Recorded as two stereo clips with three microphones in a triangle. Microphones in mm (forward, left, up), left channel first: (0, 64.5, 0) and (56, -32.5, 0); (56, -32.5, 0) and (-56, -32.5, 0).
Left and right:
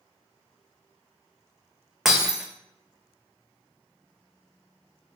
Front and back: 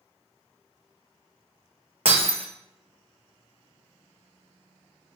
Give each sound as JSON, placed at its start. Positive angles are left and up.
{"t": 2.0, "sound": "breaking glass", "azimuth_deg": -145, "distance_m": 1.2}